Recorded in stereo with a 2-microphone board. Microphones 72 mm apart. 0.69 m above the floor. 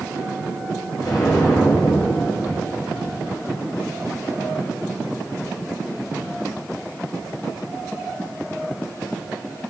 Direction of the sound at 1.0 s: 60° left (ahead or behind).